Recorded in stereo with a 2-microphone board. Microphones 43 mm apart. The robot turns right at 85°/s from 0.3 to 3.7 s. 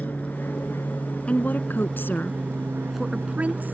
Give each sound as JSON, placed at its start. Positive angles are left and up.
{"t": 0.0, "sound": "an aircraft", "azimuth_deg": 50}
{"t": 1.3, "sound": "a woman speaking", "azimuth_deg": 40}